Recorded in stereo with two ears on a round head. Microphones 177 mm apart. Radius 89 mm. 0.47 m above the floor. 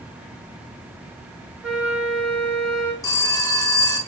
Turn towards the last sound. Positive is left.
turn(degrees=20)  # may be behind; listen again after turning